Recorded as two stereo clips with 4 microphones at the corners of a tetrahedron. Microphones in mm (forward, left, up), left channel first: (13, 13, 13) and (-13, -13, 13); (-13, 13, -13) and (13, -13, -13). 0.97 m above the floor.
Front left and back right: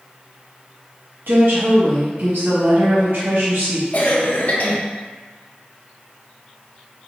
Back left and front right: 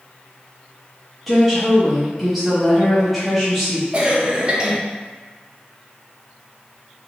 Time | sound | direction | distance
1.3 | a woman speaking | 135° right | 1.1 m
3.9 | a cough | 10° left | 0.7 m